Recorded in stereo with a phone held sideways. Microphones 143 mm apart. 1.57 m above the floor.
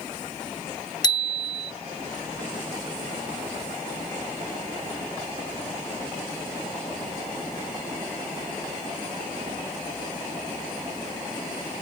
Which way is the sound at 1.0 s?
30° left (ahead or behind).